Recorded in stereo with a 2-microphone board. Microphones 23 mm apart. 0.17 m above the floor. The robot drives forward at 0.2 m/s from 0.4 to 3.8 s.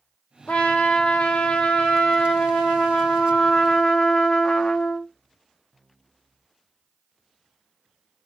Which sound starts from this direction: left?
A trumpet, at 0.5 s.